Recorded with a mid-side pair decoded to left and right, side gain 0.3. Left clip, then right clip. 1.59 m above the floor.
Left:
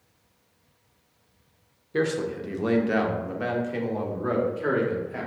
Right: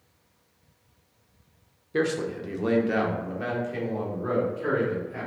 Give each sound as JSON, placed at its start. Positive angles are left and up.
{"t": 1.9, "sound": "a man speaking", "azimuth_deg": -10, "distance_m": 0.8}